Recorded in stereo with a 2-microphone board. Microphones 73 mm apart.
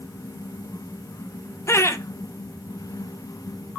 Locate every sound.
1.7 s laughter: 40° left (ahead or behind), 0.9 m